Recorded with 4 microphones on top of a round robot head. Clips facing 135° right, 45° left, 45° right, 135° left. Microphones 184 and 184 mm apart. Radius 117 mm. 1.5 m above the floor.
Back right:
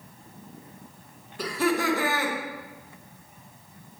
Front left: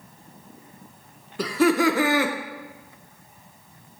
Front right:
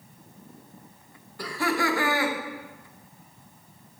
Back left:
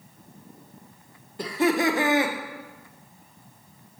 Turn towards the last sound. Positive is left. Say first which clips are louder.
# front left 6 dB, back left 5 dB
turn(degrees=60)